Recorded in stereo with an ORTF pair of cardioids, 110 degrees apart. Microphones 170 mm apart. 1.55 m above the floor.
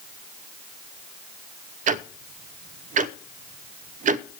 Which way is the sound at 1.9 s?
50° right.